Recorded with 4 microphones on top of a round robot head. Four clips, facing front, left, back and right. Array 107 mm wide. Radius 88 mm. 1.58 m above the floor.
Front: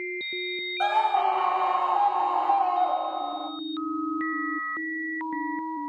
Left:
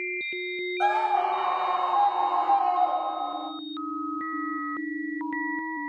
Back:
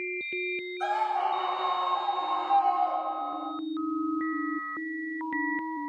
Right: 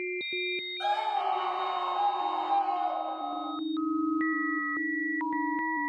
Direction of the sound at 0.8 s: 40° left.